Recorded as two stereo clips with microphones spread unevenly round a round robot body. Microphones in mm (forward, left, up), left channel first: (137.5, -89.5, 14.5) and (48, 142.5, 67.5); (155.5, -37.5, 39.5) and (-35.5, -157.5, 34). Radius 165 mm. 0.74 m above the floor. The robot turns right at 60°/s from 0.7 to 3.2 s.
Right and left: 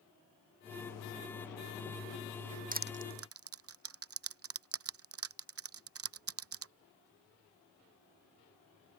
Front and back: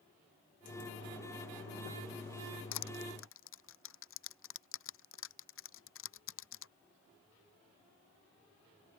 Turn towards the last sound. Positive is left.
turn(degrees=85)